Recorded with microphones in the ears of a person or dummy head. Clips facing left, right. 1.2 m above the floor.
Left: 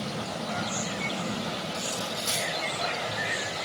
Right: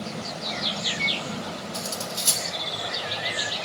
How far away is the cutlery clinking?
About 2.5 m.